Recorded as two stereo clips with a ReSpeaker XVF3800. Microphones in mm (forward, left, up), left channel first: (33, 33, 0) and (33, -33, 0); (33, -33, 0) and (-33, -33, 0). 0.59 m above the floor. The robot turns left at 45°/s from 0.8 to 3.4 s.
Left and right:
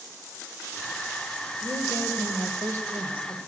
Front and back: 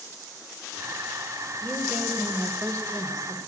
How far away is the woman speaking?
About 1.9 m.